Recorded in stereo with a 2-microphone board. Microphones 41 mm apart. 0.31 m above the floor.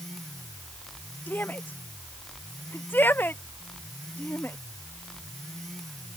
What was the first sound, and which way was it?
A shout, 55° left (ahead or behind).